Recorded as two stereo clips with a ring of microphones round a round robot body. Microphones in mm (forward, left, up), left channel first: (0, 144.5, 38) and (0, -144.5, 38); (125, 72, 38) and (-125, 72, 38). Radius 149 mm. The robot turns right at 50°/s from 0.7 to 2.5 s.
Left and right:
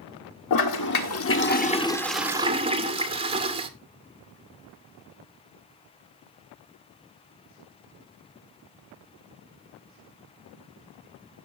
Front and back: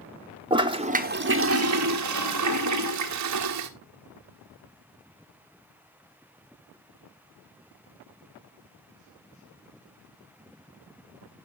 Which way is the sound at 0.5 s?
110° left.